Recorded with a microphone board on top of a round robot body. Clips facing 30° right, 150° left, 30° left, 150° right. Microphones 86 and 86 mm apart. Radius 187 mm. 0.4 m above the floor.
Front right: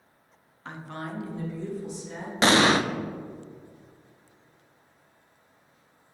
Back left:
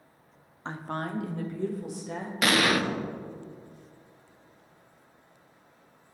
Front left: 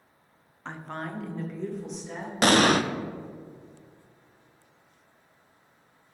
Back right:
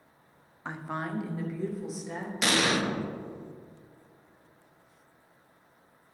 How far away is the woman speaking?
About 0.8 m.